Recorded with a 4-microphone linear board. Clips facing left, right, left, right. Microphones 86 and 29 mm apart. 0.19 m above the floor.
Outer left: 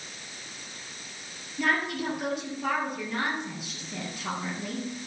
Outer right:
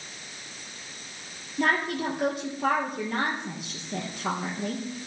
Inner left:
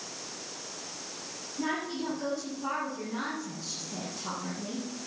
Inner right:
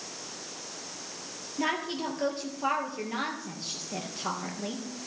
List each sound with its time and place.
1.6 s a woman speaking: 45° right (ahead or behind), 4 m